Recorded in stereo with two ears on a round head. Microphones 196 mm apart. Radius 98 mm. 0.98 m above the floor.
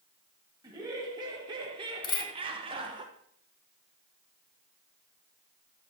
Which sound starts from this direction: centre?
Laughter, at 0.6 s.